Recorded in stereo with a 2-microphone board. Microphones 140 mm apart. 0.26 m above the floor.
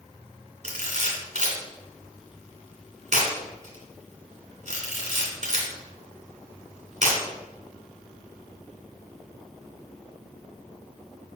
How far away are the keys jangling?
I don't hear keys jangling.